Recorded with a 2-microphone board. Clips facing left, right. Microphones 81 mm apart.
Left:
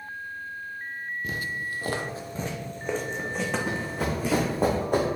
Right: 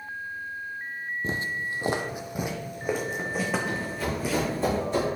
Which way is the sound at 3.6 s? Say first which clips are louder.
Left 1 dB; 65° left (ahead or behind).